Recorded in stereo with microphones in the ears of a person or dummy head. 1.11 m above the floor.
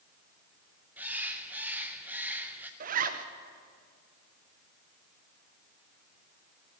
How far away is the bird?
About 0.6 m.